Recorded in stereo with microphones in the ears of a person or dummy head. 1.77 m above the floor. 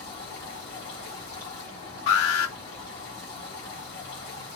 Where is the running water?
45° left (ahead or behind), 2 m.